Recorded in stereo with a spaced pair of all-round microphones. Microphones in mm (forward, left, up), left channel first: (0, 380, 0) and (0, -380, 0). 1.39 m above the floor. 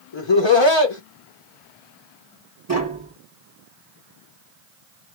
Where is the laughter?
35° left (ahead or behind), 1.0 m.